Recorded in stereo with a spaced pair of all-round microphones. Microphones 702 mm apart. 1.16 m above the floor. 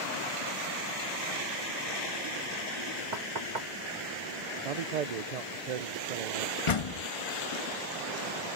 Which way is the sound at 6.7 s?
50° left (ahead or behind).